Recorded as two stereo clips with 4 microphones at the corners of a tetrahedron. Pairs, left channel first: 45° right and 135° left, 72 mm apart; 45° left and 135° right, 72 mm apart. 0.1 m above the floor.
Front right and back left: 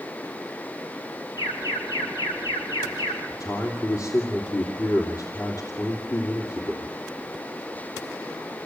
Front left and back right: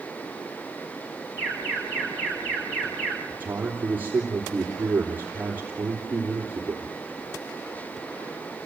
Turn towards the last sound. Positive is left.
turn(degrees=-70)